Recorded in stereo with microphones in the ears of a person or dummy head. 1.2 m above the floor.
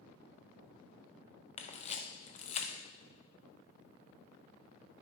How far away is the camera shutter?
About 0.7 m.